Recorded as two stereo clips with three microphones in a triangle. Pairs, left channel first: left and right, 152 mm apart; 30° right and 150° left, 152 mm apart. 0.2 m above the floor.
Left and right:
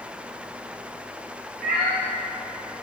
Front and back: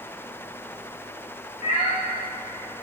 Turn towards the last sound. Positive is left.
turn(degrees=-75)